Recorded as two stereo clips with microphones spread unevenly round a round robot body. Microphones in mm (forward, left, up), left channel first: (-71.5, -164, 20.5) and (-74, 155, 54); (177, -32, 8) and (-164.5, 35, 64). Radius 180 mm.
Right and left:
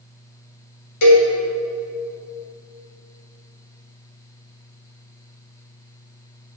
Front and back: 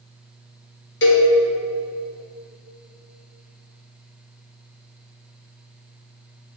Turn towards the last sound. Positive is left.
turn(degrees=-65)